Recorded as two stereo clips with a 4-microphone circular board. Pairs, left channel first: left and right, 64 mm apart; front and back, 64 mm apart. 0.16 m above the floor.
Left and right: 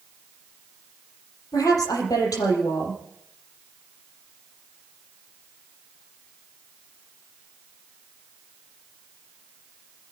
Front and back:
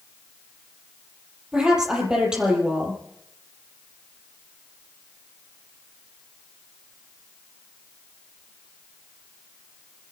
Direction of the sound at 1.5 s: 100° left.